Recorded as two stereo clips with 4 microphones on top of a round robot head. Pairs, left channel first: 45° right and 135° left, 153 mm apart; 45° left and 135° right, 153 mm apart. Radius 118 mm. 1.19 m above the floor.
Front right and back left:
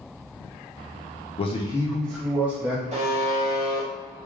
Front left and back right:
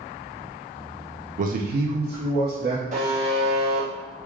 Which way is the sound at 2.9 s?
Straight behind.